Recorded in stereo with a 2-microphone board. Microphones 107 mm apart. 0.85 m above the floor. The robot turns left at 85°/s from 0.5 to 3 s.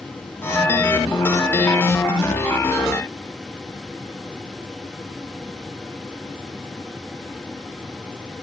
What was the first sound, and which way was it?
Only background noise.